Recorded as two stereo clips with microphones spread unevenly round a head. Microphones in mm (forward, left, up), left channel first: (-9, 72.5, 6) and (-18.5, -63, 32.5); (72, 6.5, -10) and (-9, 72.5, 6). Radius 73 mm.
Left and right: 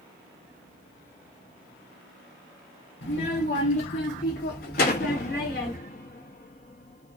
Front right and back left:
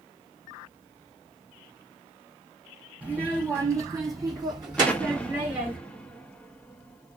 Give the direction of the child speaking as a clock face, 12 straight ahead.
10 o'clock.